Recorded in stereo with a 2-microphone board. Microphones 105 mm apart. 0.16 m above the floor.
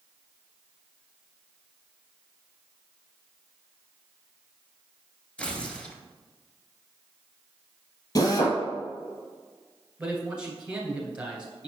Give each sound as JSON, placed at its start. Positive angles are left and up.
{"t": 5.4, "sound": "tearing paper", "side_deg": 10, "distance_m": 1.2}
{"t": 8.2, "sound": "a drill", "side_deg": 40, "distance_m": 1.5}
{"t": 10.0, "sound": "a man speaking", "side_deg": -10, "distance_m": 2.0}